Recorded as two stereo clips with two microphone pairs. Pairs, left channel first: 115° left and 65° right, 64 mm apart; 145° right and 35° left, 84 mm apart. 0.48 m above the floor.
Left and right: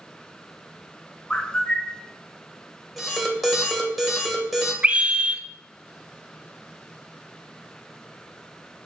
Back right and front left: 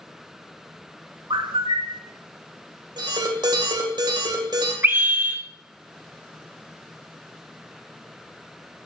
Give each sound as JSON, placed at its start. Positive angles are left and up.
{"t": 1.3, "sound": "a bird", "azimuth_deg": 40, "distance_m": 0.8}
{"t": 3.0, "sound": "an alarm", "azimuth_deg": 25, "distance_m": 2.5}
{"t": 4.8, "sound": "a scream", "azimuth_deg": -5, "distance_m": 0.9}